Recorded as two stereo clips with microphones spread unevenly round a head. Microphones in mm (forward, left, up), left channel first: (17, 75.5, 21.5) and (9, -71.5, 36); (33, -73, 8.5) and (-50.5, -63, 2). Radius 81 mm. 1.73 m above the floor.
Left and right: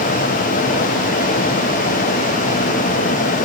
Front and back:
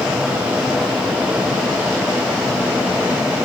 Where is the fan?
95° left, 1.6 m.